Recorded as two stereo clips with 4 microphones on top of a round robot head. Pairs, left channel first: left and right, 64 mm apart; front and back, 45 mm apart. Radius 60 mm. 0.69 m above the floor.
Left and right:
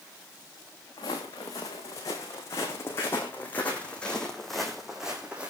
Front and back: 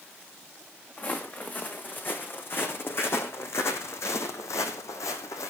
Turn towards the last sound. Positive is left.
turn(degrees=-15)